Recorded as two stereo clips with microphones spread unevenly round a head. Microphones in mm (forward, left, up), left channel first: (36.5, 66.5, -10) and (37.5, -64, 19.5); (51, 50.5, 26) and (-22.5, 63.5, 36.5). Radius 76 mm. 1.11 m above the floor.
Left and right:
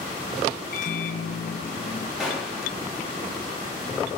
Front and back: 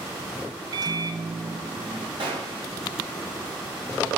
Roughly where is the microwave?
Behind left.